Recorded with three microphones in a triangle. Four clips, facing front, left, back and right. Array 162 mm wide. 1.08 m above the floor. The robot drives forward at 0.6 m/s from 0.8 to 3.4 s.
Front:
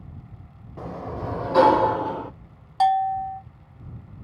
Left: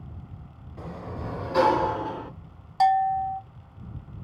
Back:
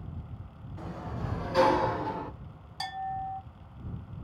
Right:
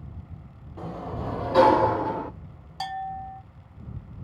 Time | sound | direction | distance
0.8 | a sliding door | 20° right | 1.5 m
2.8 | a bell | 35° left | 0.7 m